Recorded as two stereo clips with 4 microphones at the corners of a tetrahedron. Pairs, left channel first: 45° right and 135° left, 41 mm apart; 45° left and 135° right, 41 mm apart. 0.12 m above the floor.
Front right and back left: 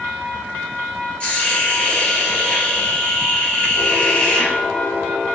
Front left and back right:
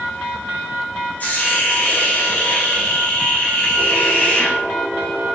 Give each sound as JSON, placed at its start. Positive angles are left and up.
{"t": 1.2, "sound": "a hiss", "azimuth_deg": 10, "distance_m": 1.9}